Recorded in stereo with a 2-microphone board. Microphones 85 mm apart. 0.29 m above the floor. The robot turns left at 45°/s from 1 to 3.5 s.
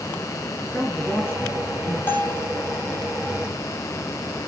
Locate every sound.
0.6 s a man speaking: 170° left, 4 m; by 2.0 s 125° left, 4 m
2.1 s a bell: 25° left (ahead or behind), 3 m; by 2.5 s 5° left (ahead or behind), 3 m